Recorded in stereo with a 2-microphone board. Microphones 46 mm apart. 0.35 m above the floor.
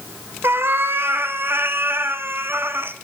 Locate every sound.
0.4 s a cat meowing: 55° right (ahead or behind), 0.7 m